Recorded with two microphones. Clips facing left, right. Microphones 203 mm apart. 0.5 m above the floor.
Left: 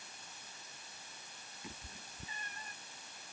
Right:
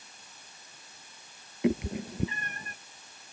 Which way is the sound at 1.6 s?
85° right.